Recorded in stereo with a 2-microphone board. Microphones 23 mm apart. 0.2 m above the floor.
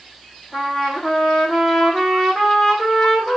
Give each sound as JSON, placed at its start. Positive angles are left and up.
{"t": 0.5, "sound": "a trumpet", "side_deg": 25, "distance_m": 3.0}